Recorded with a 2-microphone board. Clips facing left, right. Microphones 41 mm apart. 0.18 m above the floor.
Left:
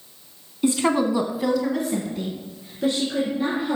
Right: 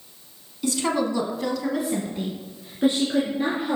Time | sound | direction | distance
0.6 | a woman speaking | 25° left (ahead or behind) | 1.2 m